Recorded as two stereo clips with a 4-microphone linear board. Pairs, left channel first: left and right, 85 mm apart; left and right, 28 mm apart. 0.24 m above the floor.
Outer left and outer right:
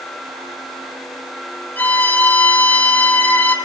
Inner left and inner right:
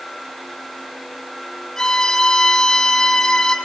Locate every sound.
1.8 s a violin: 20° left (ahead or behind), 1.4 m